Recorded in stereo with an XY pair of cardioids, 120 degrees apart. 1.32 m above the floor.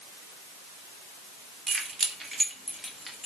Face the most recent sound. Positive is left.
turn(degrees=10)